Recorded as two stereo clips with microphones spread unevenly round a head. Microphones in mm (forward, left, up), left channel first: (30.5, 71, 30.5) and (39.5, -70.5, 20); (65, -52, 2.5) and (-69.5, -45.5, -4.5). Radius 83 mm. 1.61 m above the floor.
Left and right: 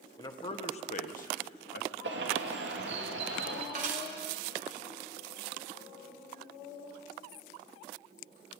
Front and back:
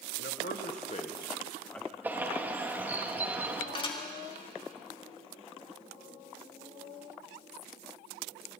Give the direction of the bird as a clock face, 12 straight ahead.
4 o'clock.